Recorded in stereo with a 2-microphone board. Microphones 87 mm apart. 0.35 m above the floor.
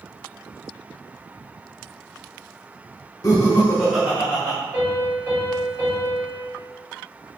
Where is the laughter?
40° left (ahead or behind), 1.1 m; by 4.6 s 40° right (ahead or behind), 1.1 m.